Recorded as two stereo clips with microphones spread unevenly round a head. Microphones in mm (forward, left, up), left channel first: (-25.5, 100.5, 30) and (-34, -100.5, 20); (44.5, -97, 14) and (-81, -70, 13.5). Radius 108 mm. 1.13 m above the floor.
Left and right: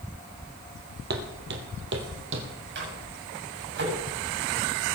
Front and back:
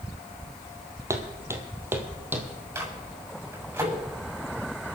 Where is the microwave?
125° right, 7 m.